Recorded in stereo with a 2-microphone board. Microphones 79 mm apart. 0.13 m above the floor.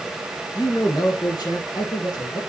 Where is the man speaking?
45° left (ahead or behind), 1.7 m; by 2.4 s 65° left (ahead or behind), 2.5 m.